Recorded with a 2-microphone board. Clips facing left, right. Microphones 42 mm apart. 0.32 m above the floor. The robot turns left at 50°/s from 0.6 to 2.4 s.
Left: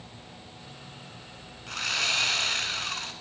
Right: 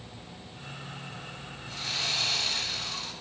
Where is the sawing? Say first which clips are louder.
Left 5 dB; 90° left, 1.0 m; by 3.1 s 55° left, 1.0 m.